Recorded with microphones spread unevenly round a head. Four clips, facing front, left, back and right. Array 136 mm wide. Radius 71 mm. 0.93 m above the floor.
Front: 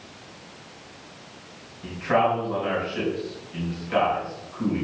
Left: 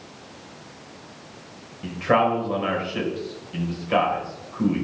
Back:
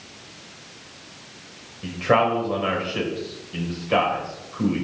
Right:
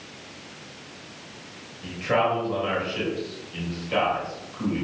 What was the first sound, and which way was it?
A man speaking, 140° left.